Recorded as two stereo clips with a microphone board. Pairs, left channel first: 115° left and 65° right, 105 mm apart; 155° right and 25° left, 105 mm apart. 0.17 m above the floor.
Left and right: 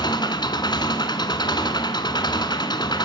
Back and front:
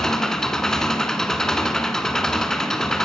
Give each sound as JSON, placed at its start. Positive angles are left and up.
{"t": 0.0, "sound": "an engine running", "azimuth_deg": 120, "distance_m": 1.7}